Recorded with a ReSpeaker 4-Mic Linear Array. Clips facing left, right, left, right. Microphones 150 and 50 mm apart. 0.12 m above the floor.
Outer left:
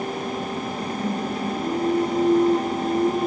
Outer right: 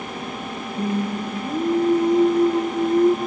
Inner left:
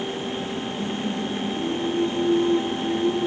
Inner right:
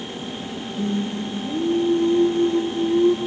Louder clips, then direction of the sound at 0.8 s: Outer right 5 dB, inner right 5 dB; 60° right (ahead or behind).